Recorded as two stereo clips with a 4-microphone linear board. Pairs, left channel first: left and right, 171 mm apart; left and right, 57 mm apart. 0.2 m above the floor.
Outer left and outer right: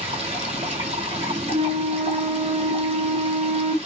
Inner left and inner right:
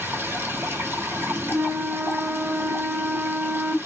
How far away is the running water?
About 1.2 m.